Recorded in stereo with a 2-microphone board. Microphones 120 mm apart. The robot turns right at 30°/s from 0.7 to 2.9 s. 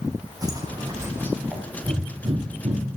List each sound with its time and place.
0.4 s footsteps: 30° right (ahead or behind), 5 m; by 1.6 s 10° right (ahead or behind), 4.5 m
1.8 s breathing: 40° right (ahead or behind), 3 m; by 3.0 s 65° right (ahead or behind), 3 m